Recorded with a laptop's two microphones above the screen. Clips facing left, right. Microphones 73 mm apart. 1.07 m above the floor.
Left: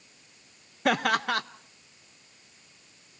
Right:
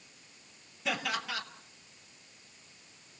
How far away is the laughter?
About 1.0 m.